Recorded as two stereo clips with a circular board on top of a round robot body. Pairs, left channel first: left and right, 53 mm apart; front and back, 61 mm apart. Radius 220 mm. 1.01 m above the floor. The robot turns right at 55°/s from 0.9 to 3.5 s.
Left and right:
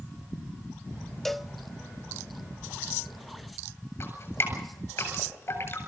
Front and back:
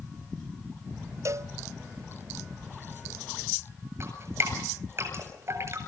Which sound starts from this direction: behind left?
Dripping, at 4.0 s.